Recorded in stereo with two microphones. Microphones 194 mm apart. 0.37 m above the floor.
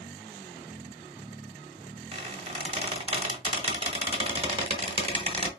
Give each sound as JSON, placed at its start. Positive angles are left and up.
{"t": 2.1, "sound": "a squeak", "side_deg": -30, "distance_m": 0.9}